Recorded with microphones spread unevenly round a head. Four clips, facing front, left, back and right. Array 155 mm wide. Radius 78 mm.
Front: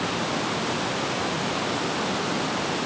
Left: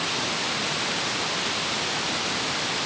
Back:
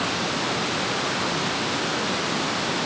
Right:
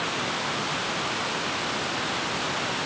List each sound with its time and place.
Only background noise.